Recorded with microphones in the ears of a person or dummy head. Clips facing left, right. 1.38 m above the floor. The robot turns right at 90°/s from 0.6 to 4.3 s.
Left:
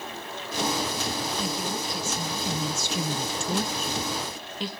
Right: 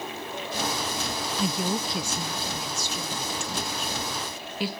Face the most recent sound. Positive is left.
turn(degrees=-170)